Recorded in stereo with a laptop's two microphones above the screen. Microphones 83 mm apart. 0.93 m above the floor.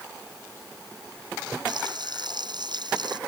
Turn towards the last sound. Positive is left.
turn(degrees=-60)  # may be behind; listen again after turning